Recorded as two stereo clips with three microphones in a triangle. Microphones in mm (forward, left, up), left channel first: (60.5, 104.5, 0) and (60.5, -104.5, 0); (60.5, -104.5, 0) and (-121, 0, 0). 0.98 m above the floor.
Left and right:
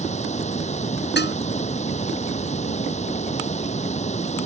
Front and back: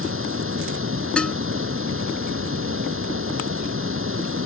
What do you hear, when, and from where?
0.0 s running water: 145° left
1.2 s dishes clattering: 55° left